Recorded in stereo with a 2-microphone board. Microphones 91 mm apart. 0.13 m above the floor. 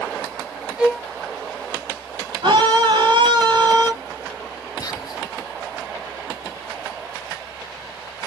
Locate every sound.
0.8 s a violin: 5° right (ahead or behind), 1.3 m
2.4 s a scream: 60° right (ahead or behind), 3 m
4.8 s whispering: 40° left (ahead or behind), 1.4 m